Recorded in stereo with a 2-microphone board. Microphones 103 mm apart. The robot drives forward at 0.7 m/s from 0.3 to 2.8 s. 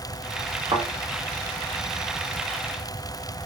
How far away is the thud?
About 4 m.